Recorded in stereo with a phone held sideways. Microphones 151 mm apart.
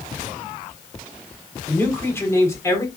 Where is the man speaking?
15° left (ahead or behind), 4 m; by 2.9 s 20° left (ahead or behind), 4.5 m.